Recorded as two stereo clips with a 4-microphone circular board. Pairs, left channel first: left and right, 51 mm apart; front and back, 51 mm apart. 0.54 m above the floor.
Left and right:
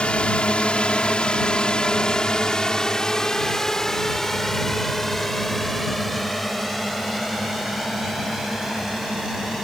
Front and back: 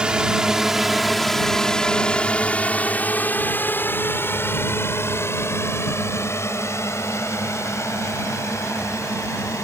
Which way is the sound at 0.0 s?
130° left.